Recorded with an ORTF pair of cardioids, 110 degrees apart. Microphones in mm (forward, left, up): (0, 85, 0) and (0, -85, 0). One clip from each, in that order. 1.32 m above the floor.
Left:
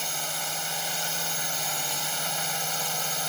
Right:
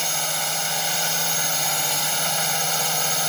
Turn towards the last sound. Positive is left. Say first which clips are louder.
# right 6 dB
turn(degrees=-35)